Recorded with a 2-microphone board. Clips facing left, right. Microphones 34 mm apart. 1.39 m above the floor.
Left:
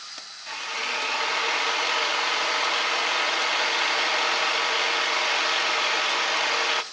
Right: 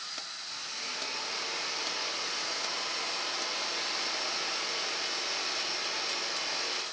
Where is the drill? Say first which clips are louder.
Left 13 dB; 65° left (ahead or behind), 1.9 m.